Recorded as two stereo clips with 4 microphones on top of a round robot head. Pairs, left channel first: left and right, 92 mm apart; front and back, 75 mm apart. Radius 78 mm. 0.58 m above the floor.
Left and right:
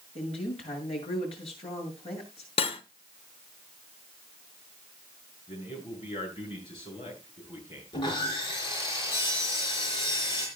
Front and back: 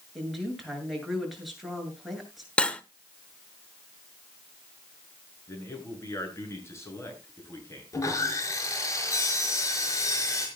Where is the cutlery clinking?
75° left, 1.2 m.